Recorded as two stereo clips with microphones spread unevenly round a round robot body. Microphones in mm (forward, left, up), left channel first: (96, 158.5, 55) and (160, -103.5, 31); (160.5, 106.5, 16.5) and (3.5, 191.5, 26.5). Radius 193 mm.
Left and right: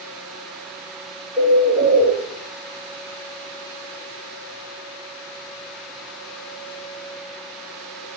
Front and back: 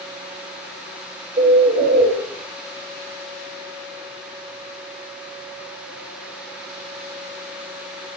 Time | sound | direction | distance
1.4 | a bird | 135° right | 1.6 m